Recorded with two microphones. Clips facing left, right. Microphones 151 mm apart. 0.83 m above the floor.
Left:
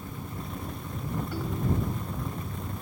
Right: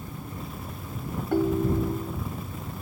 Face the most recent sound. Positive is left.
turn(degrees=-60)  # may be behind; listen again after turning